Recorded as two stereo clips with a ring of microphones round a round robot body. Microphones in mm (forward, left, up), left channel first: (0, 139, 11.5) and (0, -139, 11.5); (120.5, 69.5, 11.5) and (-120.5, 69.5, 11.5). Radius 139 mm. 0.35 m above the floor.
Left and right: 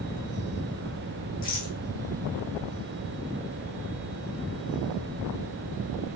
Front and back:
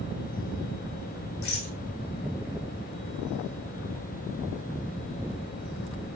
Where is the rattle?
30° left, 4.5 m.